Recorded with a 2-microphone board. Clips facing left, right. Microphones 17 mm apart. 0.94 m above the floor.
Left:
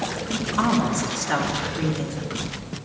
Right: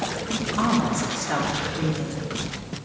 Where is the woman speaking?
5° left (ahead or behind), 2.5 m.